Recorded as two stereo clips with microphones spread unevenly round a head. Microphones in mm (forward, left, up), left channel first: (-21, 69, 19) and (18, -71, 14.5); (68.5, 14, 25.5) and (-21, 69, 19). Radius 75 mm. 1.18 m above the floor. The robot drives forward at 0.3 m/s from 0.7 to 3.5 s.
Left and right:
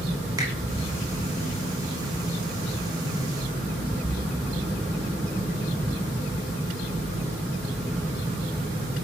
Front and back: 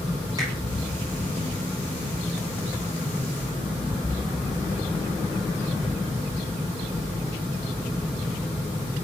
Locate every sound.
0.4 s a finger snap: 145° right, 2 m